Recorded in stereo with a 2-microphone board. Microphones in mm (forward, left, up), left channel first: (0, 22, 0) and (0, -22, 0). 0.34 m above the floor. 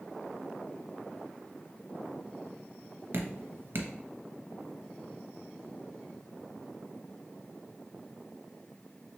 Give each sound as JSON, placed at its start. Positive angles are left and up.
{"t": 3.1, "sound": "dripping", "side_deg": -65, "distance_m": 0.6}